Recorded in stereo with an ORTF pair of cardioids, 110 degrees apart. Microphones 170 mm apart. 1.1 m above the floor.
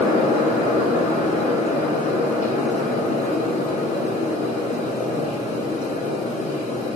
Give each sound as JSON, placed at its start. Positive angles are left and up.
{"t": 0.0, "sound": "a fan", "azimuth_deg": 45, "distance_m": 1.1}